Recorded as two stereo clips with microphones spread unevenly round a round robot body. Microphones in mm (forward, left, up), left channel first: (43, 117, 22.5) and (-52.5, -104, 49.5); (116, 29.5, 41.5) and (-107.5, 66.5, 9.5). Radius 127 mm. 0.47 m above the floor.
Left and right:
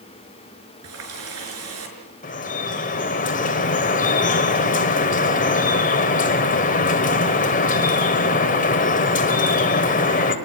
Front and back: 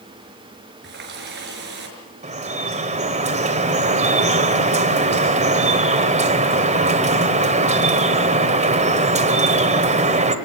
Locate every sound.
0.8 s a running tap: 140° right, 5.5 m
2.2 s dripping: 120° left, 2.0 m